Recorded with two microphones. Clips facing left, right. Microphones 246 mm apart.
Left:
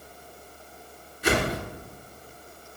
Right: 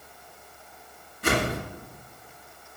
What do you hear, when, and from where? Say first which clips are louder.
1.2 s a whoosh: left 1 dB; 55° right (ahead or behind), 2.0 m